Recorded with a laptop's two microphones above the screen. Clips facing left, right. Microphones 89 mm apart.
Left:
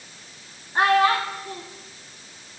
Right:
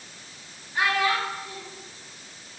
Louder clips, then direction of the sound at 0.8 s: Left 6 dB; 40° left (ahead or behind).